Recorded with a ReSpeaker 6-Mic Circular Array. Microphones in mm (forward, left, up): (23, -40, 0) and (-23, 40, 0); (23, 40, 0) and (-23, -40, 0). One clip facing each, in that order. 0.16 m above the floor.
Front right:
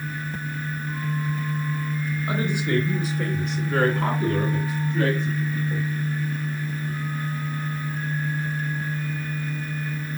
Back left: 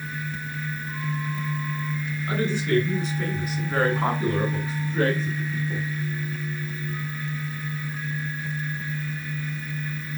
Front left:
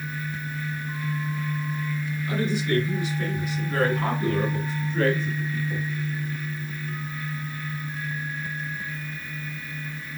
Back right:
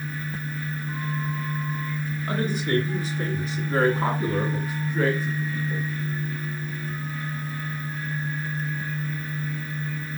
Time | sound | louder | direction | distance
2.3 | a woman speaking | back left 1 dB, even | 125° right | 1.8 m